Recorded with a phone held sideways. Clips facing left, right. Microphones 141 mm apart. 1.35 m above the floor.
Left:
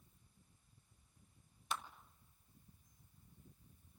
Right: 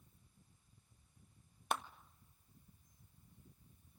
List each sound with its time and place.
1.7 s a clap: 60° right (ahead or behind), 1.1 m